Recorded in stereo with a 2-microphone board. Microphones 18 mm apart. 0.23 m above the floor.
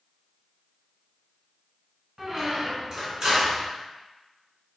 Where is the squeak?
35° right (ahead or behind), 1.0 m.